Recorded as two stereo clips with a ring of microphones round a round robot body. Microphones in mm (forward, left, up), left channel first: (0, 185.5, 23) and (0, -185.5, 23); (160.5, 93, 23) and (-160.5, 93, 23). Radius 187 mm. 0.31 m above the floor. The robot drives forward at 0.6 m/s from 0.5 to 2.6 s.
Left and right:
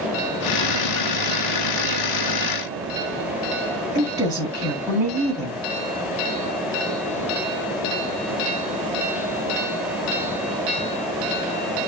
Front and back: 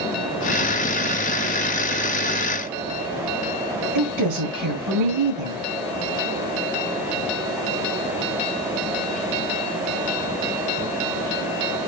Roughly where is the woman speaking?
Behind.